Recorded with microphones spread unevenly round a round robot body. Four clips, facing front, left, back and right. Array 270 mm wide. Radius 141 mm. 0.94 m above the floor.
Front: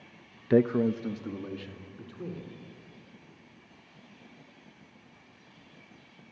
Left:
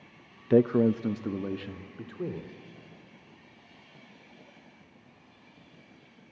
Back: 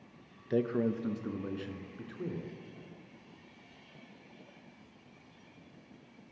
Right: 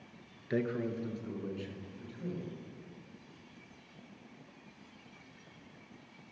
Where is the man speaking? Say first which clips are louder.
Left 12 dB, front 7 dB; 35° left, 0.6 m; by 2.5 s 100° left, 3 m.